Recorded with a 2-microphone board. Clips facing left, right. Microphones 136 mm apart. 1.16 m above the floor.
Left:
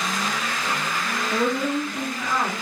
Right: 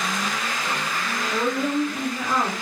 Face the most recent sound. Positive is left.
turn(degrees=-20)  # may be behind; listen again after turning